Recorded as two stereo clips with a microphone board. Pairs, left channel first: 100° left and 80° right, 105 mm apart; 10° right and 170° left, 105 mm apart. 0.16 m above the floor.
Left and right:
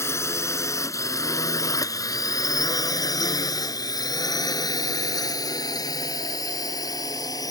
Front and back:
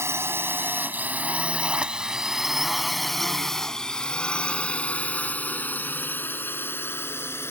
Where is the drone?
135° left; by 7.5 s 50° left.